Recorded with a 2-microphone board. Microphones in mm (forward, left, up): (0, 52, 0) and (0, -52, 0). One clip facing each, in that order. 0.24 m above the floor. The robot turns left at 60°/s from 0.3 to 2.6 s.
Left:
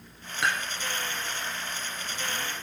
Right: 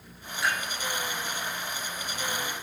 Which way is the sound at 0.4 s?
65° left (ahead or behind).